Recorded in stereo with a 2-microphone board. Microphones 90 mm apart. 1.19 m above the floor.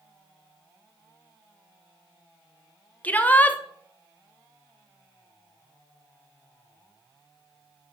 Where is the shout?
15° left (ahead or behind), 0.6 m.